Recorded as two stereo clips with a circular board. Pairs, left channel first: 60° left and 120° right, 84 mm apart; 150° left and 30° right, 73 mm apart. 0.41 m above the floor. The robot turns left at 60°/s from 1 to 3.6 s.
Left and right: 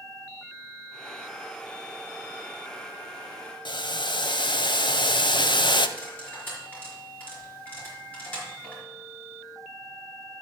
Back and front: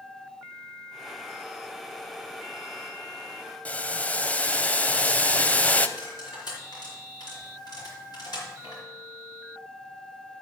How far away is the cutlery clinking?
About 4 m.